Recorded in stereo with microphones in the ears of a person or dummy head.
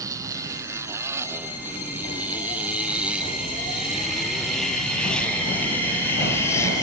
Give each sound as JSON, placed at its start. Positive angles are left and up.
{"t": 0.0, "sound": "a motorcycle", "side_deg": -20}